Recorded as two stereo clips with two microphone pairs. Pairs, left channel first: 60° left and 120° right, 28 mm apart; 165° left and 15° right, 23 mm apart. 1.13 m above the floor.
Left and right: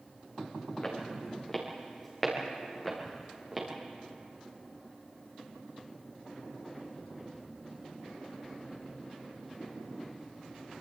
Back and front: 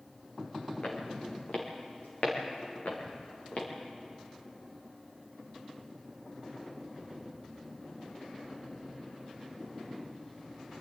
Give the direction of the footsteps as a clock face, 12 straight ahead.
8 o'clock.